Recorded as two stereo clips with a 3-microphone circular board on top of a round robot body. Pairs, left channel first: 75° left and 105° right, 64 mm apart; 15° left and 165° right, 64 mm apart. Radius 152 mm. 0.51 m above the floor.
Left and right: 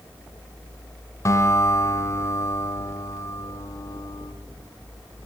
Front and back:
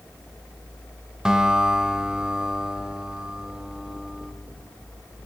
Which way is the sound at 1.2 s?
115° left.